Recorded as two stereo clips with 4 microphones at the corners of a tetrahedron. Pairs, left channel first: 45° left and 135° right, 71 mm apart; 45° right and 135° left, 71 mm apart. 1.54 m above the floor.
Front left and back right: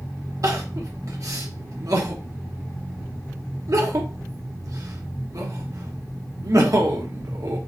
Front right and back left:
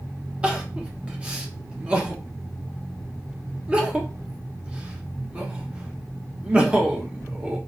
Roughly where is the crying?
Behind right.